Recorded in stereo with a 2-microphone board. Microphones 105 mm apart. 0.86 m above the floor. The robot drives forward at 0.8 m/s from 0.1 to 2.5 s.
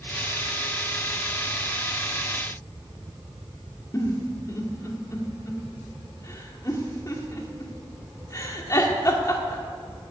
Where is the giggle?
30° left (ahead or behind), 1.6 m.